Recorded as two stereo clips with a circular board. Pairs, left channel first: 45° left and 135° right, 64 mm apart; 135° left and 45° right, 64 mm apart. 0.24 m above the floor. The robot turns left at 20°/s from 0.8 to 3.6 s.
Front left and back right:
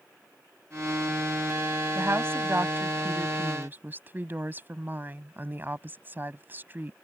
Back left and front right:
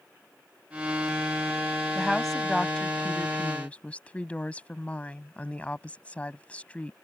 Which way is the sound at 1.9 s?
135° right.